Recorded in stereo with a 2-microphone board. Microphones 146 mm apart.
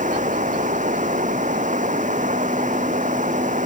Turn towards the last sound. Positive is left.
turn(degrees=-60)  # may be behind; listen again after turning